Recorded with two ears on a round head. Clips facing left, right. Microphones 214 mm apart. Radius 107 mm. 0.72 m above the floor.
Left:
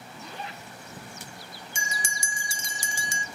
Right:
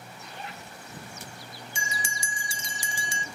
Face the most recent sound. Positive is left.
turn(degrees=40)  # may be behind; listen again after turning